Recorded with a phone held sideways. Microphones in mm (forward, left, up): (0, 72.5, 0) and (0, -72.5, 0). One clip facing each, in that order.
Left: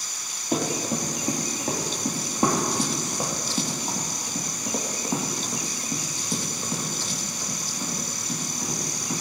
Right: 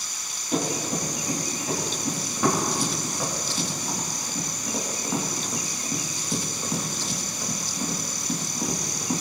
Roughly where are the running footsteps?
Left.